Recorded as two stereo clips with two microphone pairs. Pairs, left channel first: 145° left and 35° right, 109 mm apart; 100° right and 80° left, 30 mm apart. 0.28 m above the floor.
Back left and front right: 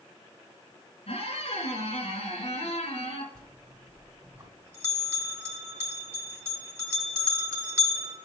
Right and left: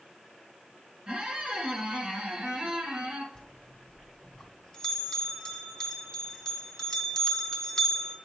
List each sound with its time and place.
1.1 s a squeak: 135° left, 1.6 m
3.4 s a bell: 65° right, 1.2 m